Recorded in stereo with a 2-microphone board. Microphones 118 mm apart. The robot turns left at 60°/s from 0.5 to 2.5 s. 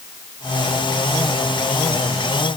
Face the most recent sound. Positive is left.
No sound to turn to.